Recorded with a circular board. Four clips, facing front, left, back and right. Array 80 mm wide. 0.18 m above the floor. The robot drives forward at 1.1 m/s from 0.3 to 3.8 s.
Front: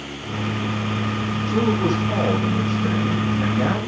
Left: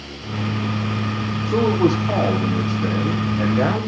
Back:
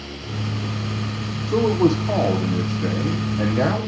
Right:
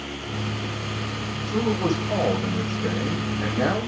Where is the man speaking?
135° left, 9 m; by 3.9 s 145° left, 10.5 m.